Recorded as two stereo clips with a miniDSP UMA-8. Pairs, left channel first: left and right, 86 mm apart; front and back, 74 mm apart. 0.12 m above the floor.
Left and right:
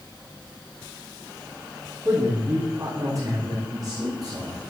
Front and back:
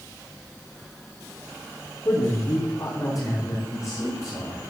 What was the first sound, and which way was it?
A man speaking, 35° right.